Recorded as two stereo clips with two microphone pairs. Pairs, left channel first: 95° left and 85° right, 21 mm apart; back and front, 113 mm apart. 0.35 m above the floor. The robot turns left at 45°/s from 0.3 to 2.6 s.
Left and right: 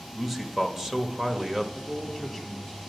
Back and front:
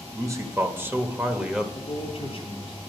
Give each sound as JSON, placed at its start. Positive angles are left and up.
{"t": 0.1, "sound": "a man speaking", "azimuth_deg": -25, "distance_m": 1.0}
{"t": 1.8, "sound": "a man speaking", "azimuth_deg": -140, "distance_m": 3.0}